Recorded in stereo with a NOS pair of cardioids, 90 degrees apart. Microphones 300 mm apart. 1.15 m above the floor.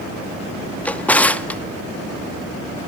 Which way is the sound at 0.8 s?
5° left.